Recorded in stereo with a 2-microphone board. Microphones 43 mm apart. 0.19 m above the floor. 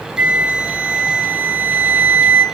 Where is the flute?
35° right (ahead or behind), 2 m.